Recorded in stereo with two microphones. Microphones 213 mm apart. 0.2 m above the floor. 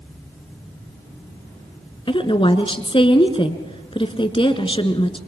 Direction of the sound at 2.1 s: 25° left (ahead or behind).